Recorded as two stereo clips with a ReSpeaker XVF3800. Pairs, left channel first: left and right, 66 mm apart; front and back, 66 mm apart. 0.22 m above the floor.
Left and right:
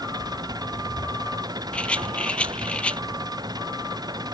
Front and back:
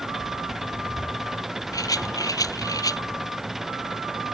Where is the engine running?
95° right.